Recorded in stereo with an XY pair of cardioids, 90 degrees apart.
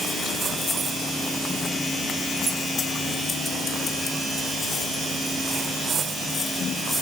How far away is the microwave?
No microwave in this recording.